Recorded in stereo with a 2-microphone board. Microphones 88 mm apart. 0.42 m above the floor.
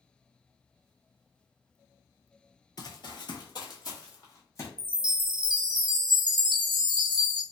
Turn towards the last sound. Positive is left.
turn(degrees=-65)  # may be behind; listen again after turning